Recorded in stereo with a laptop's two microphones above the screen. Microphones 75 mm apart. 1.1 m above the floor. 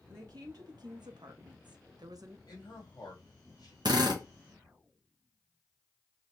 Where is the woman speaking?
55° right (ahead or behind), 1.3 m; by 2.4 s 45° right (ahead or behind), 0.6 m.